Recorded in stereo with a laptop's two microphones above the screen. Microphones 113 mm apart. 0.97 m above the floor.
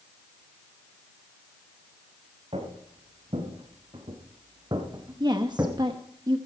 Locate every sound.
2.5 s footsteps: 60° right (ahead or behind), 5.5 m; by 5.8 s 25° right (ahead or behind), 3 m
5.2 s a woman speaking: 40° right (ahead or behind), 0.9 m